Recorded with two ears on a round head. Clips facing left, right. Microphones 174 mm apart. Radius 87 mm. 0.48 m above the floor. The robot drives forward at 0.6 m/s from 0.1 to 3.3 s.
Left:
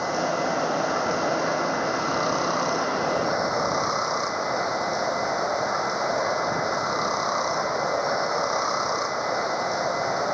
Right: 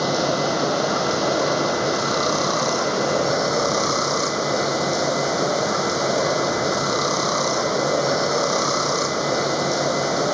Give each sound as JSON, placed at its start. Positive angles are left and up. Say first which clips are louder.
{"t": 0.0, "sound": "running water", "louder": "right 4 dB", "side_deg": -45}